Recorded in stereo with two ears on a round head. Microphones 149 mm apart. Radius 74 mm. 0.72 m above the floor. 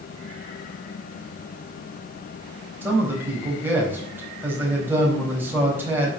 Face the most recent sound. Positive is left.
turn(degrees=-10)  # may be behind; listen again after turning